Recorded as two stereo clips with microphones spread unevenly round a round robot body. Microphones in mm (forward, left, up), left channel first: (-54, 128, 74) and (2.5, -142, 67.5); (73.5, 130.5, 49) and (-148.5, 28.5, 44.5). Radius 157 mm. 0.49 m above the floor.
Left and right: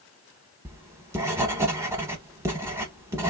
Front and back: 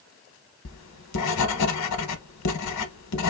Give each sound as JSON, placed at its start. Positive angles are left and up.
{"t": 0.7, "sound": "writing", "azimuth_deg": 5, "distance_m": 0.6}